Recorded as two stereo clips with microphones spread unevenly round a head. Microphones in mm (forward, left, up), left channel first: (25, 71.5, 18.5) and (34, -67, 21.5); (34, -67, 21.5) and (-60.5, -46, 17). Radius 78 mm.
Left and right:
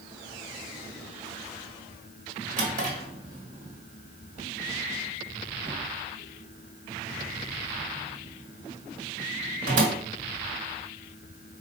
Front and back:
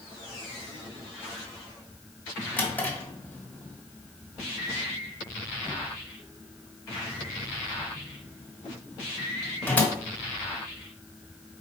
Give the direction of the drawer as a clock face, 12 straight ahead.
3 o'clock.